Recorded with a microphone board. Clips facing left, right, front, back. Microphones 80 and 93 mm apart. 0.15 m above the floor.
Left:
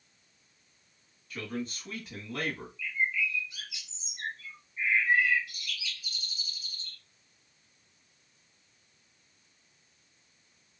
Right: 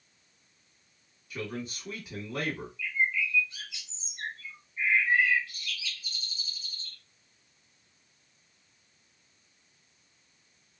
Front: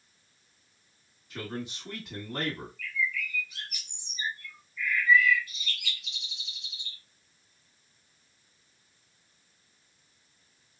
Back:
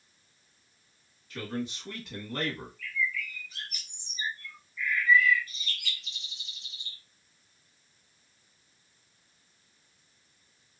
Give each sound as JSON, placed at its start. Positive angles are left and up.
{"t": 1.3, "sound": "a man speaking", "azimuth_deg": -35, "distance_m": 1.1}
{"t": 2.8, "sound": "a bird", "azimuth_deg": 160, "distance_m": 1.5}